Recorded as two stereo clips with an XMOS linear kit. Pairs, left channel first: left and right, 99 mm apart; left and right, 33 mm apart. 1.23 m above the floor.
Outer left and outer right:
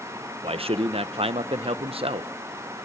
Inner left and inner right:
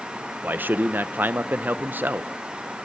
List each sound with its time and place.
0.4 s a man speaking: 75° right (ahead or behind), 0.8 m